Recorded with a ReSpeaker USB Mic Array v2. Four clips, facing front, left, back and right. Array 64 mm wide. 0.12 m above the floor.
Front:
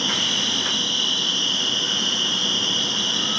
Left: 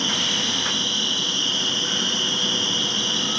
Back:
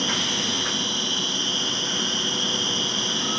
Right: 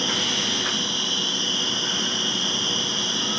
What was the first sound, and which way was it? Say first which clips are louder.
An insect: left 1 dB, front 1 dB; 15° left.